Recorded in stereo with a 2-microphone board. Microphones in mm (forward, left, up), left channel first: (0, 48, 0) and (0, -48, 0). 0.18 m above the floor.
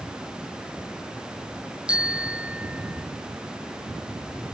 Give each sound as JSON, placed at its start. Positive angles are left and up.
{"t": 1.9, "sound": "a bicycle bell", "side_deg": -10}